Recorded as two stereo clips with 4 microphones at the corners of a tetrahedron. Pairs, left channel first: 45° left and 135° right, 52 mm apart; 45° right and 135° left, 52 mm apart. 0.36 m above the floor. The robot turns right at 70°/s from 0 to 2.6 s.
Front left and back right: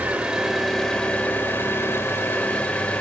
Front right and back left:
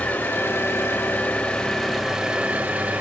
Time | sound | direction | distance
0.0 | an engine running | 90° right | 0.9 m